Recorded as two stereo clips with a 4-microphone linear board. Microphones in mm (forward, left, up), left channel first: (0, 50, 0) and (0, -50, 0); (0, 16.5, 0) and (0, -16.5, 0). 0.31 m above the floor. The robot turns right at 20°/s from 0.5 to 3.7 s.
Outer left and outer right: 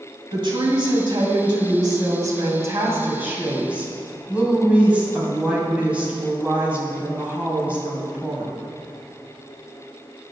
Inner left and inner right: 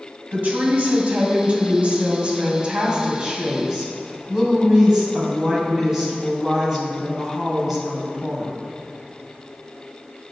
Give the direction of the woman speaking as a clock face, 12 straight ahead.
3 o'clock.